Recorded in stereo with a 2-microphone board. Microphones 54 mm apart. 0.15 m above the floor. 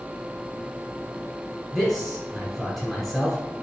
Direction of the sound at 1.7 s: 5° left (ahead or behind).